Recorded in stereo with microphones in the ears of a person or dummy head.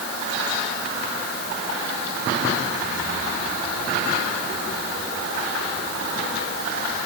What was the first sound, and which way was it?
Only background noise.